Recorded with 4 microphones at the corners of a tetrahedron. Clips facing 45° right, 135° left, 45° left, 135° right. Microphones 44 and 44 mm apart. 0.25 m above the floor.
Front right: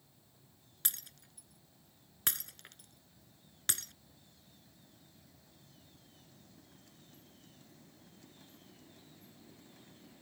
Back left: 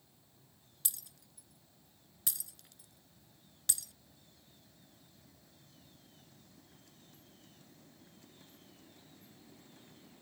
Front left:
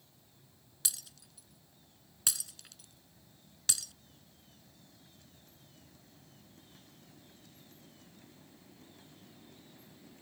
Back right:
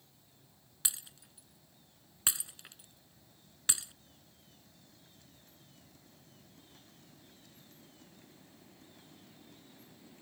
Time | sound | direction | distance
0.8 | breaking glass | 70° right | ?